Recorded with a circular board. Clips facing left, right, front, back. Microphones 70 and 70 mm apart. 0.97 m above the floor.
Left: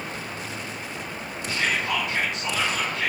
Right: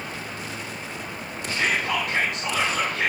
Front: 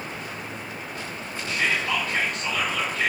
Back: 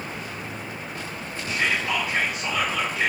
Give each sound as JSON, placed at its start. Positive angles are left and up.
{"t": 1.5, "sound": "whispering", "azimuth_deg": -100, "distance_m": 5.0}